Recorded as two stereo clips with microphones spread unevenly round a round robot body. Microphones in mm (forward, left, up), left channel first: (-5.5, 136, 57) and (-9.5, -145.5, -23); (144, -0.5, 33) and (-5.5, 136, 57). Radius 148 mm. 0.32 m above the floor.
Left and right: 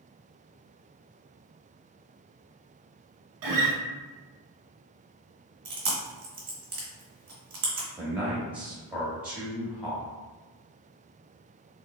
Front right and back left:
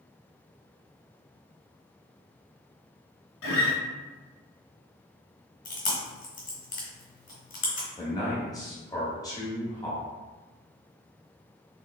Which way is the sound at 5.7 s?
45° right.